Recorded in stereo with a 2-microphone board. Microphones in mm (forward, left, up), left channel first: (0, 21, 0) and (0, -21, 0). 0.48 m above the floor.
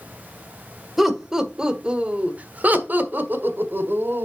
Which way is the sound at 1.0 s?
5° right (ahead or behind).